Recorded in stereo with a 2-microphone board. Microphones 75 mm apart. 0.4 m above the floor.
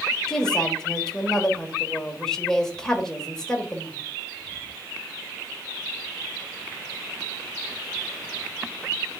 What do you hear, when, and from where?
0.3 s a woman speaking: 10° left (ahead or behind), 1.3 m